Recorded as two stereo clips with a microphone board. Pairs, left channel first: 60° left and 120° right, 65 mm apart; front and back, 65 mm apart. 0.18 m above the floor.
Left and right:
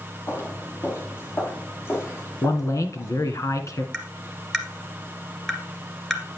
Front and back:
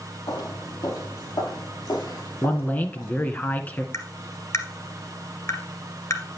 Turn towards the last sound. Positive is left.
turn(degrees=-25)